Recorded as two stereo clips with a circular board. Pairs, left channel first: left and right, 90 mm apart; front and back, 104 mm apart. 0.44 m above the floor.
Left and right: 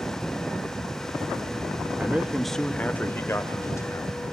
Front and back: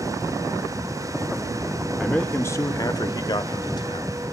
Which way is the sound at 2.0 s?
80° right.